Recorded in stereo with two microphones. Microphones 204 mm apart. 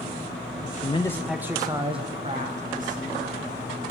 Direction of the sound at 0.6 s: 50° left (ahead or behind).